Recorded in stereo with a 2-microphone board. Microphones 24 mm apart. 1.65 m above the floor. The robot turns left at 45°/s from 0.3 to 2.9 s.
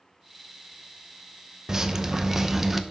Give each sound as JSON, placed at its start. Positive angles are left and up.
{"t": 1.7, "sound": "dripping", "side_deg": -25, "distance_m": 0.7}